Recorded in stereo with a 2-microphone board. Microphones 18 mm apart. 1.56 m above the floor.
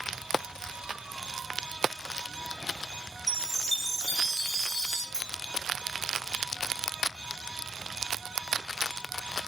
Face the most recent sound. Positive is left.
turn(degrees=55)  # may be behind; listen again after turning